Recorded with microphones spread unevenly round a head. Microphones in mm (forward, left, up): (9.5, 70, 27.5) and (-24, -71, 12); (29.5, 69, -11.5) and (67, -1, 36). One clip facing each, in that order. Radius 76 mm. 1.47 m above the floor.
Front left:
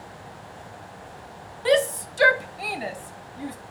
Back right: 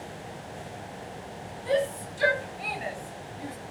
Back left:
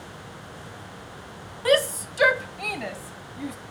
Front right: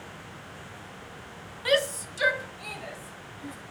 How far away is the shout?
About 2.0 m.